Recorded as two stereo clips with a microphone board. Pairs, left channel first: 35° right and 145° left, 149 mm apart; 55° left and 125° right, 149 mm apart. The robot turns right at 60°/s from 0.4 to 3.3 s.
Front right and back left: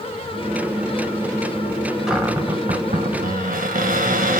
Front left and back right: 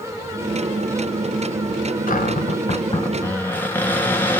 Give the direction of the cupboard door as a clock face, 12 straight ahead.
10 o'clock.